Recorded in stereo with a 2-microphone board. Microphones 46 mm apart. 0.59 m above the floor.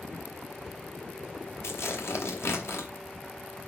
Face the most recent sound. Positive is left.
turn(degrees=70)  # may be behind; listen again after turning